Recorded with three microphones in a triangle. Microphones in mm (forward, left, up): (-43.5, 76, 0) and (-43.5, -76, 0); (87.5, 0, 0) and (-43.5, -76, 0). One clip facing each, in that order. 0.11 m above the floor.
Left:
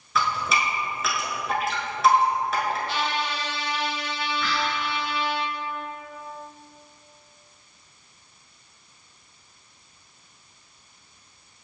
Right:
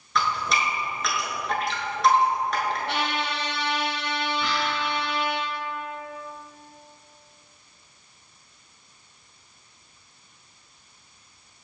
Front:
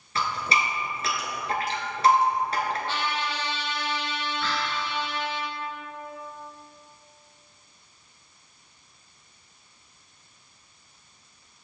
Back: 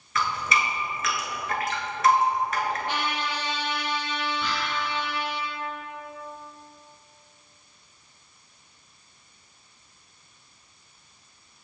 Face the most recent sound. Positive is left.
turn(degrees=-105)